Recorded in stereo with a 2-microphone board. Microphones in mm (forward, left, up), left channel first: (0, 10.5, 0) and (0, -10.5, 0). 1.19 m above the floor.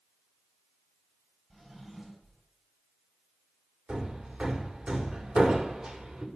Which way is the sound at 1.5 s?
25° right (ahead or behind).